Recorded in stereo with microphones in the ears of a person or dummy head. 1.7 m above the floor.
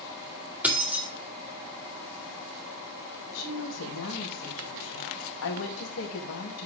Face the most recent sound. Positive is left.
turn(degrees=75)  # may be behind; listen again after turning